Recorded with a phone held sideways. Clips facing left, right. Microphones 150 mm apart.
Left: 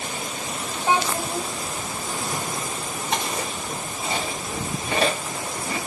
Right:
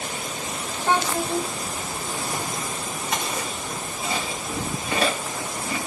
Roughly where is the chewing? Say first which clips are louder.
Left 2 dB; left.